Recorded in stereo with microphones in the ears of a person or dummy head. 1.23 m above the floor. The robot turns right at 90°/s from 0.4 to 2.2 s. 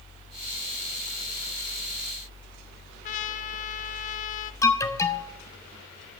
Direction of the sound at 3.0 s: 35° left (ahead or behind).